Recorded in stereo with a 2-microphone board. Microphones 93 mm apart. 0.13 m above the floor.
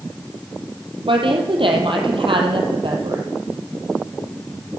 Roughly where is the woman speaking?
Right.